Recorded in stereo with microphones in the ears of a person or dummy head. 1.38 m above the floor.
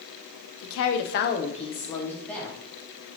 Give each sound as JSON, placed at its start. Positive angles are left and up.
{"t": 0.6, "sound": "a woman speaking", "side_deg": 80, "distance_m": 0.7}